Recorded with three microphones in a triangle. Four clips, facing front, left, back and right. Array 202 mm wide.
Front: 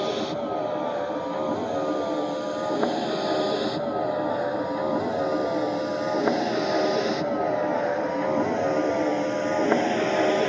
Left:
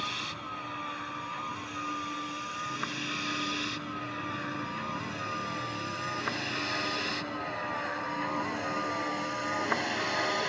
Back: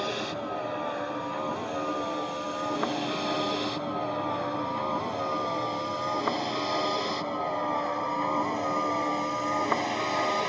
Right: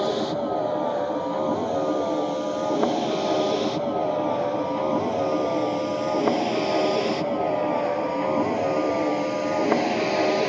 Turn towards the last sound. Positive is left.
turn(degrees=-40)